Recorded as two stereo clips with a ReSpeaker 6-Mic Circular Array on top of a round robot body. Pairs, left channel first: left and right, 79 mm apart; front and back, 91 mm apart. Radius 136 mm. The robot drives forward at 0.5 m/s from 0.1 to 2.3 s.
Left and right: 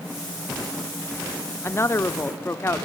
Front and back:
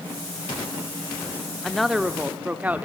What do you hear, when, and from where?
1.6 s a woman speaking: 80° left, 1.0 m; by 2.9 s 115° left, 1.0 m